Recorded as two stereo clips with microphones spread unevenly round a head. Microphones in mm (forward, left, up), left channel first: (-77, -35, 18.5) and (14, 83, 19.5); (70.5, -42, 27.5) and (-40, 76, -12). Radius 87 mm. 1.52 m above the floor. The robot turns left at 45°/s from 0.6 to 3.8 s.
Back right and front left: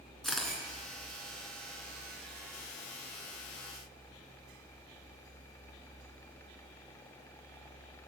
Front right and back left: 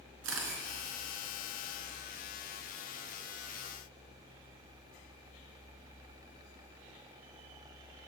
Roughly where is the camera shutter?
Behind left.